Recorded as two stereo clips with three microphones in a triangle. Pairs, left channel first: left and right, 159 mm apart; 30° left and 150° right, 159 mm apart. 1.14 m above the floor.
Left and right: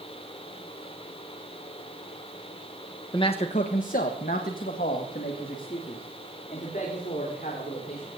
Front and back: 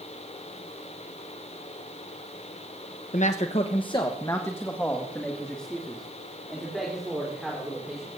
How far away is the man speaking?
About 0.8 m.